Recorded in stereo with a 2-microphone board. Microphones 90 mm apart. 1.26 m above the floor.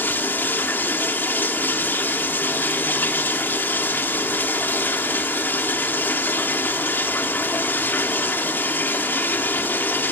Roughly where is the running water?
Left.